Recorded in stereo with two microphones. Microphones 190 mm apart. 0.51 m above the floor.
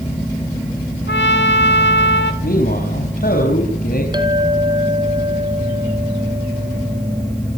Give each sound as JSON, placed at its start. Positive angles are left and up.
{"t": 1.1, "sound": "a trumpet", "side_deg": 85, "distance_m": 1.9}
{"t": 2.4, "sound": "a man speaking", "side_deg": 55, "distance_m": 4.5}
{"t": 4.1, "sound": "a clink", "side_deg": -25, "distance_m": 3.5}